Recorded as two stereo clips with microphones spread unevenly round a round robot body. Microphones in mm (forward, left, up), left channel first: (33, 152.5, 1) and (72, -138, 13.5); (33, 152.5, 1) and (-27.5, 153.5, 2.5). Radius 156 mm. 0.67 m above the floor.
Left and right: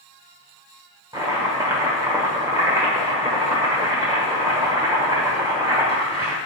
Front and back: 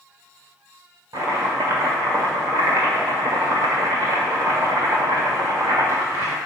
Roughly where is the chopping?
Behind.